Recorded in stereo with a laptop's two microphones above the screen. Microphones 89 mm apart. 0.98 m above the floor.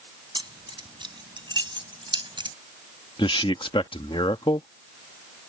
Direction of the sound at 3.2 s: 75° left (ahead or behind).